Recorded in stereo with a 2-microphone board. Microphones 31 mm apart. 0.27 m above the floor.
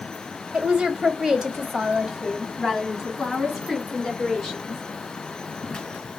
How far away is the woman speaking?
About 1.2 m.